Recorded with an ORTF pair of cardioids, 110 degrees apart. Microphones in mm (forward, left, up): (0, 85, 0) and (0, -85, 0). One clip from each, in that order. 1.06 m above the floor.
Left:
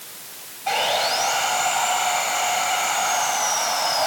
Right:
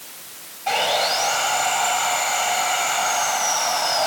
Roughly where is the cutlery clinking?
No cutlery clinking in this recording.